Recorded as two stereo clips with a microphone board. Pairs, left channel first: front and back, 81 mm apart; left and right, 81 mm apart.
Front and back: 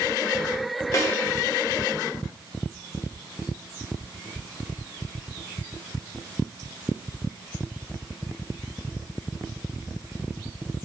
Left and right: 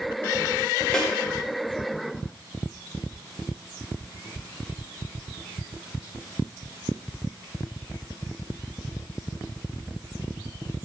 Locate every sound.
0.9 s a snare drum: 15° left, 0.6 m